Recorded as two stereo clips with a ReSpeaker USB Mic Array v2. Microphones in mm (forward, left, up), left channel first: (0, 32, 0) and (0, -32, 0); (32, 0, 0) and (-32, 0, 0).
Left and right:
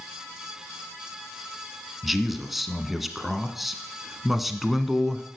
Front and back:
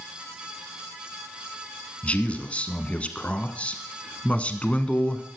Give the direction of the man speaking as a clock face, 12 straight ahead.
12 o'clock.